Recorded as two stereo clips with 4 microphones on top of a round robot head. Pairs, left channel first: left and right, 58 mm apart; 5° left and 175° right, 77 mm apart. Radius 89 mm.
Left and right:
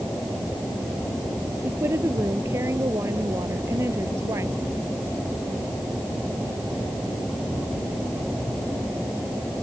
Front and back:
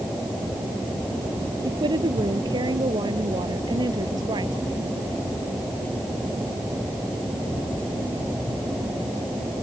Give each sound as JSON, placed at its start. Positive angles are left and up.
{"t": 1.6, "sound": "a woman speaking", "azimuth_deg": -140}